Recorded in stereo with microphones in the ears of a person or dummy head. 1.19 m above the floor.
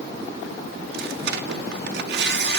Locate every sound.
0.8 s tearing paper: 55° right (ahead or behind), 0.9 m